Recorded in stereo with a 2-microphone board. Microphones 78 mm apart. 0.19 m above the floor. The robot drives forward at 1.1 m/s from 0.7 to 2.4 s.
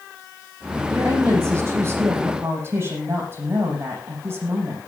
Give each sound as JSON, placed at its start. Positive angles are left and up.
{"t": 0.9, "sound": "a woman speaking", "side_deg": -40, "distance_m": 6.5}